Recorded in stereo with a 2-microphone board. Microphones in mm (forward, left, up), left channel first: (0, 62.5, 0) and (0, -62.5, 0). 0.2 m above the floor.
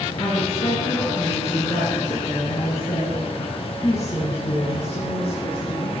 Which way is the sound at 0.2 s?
55° left (ahead or behind).